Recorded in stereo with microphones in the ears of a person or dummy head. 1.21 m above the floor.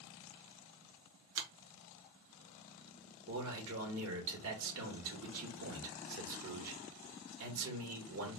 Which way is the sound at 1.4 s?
55° right (ahead or behind).